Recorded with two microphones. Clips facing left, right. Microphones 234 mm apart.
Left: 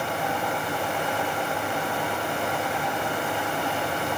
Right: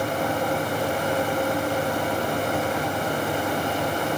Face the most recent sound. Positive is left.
No sound to turn to.